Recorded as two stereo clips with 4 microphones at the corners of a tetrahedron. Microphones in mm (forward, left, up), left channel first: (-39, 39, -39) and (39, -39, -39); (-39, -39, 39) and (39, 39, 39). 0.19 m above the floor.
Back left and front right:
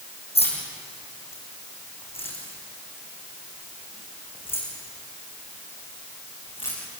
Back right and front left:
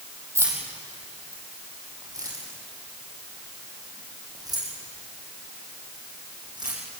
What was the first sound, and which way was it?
Keys jangling, 110° left.